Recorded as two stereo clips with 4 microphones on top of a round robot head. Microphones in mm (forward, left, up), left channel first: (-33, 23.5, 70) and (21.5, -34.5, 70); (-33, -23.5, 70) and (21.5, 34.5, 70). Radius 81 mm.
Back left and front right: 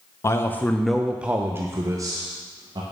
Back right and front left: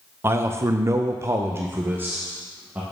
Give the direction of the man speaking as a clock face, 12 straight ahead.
9 o'clock.